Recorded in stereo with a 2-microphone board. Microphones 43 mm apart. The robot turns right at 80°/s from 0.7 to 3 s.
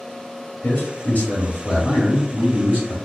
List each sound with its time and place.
0.6 s a man speaking: 80° left, 1.4 m; by 3.0 s 95° right, 1.4 m